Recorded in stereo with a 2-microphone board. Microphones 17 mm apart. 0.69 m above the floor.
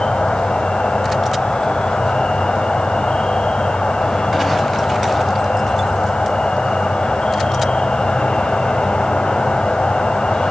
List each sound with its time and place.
0.0 s an insect: 65° left (ahead or behind), 2.0 m